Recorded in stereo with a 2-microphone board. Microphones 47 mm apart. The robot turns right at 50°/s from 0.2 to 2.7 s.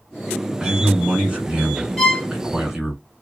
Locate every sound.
0.6 s a man speaking: 20° right (ahead or behind), 1.1 m; by 3.0 s 5° right (ahead or behind), 1.1 m
2.0 s a violin: 5° left (ahead or behind), 0.9 m; by 2.3 s 20° left (ahead or behind), 0.9 m